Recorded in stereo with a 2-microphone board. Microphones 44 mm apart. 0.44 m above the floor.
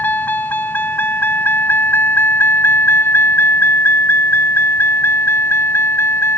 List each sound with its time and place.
0.0 s a vehicle: 45° left (ahead or behind); by 6.4 s 70° left (ahead or behind)